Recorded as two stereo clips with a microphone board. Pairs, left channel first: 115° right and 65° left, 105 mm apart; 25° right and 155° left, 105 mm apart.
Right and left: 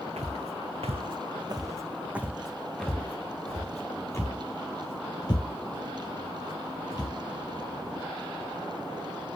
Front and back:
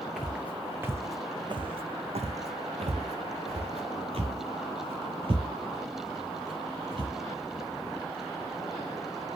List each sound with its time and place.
0.2 s footsteps: 70° left, 1.0 m; by 7.1 s 160° right, 3 m